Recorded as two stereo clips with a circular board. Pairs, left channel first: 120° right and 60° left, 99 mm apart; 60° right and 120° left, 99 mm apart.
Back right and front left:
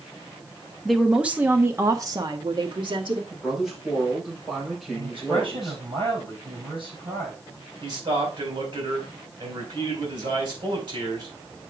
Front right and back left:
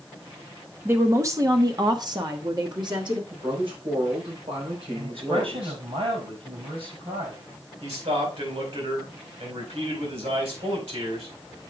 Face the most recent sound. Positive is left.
turn(degrees=105)